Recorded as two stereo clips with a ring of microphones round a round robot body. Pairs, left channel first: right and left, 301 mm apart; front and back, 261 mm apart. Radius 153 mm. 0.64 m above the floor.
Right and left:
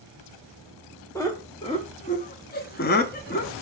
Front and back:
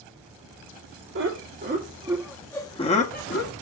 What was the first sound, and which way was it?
Laughter, 165° right.